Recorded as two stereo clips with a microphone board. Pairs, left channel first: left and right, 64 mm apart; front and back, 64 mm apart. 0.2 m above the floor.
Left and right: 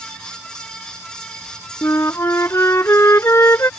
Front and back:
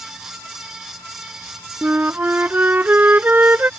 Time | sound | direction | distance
1.8 | a flute | 125° left | ?